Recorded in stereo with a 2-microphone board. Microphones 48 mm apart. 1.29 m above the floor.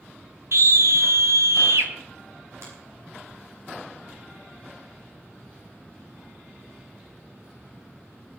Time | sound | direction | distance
0.5 | a scream | 75° right (ahead or behind) | 1.7 m
2.6 | a finger snap | 75° right (ahead or behind) | 9.5 m